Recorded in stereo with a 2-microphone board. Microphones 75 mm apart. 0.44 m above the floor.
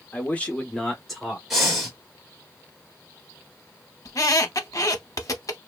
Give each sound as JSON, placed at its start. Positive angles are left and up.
{"t": 0.1, "sound": "a man speaking", "side_deg": 25, "distance_m": 0.8}
{"t": 1.5, "sound": "breathing", "side_deg": -5, "distance_m": 1.3}
{"t": 4.0, "sound": "a squeak", "side_deg": 50, "distance_m": 0.6}